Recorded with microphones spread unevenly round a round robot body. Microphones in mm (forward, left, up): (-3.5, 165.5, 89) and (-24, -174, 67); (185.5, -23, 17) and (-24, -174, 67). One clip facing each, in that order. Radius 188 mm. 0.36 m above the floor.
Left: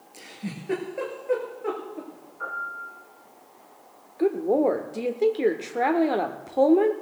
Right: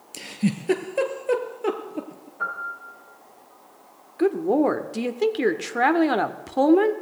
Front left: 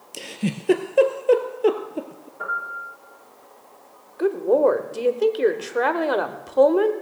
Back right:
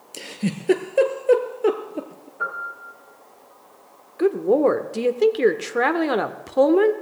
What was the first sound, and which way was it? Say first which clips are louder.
A giggle: right 11 dB, even; 55° right.